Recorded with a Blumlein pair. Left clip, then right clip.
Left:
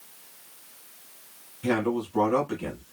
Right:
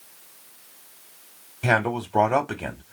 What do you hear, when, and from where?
1.6 s a man speaking: 50° right, 0.8 m